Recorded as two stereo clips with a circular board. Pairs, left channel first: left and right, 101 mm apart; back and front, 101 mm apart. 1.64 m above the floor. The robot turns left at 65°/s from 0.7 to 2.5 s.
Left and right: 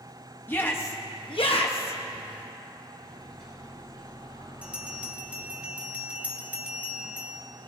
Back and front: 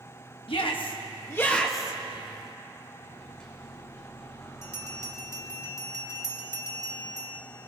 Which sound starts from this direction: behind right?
A bell, at 4.6 s.